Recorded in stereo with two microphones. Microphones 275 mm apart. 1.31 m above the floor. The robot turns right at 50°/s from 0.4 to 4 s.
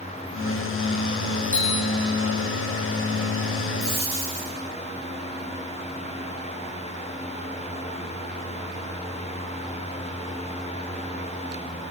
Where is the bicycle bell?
50° left (ahead or behind), 5 m; by 1.9 s 70° left (ahead or behind), 5 m.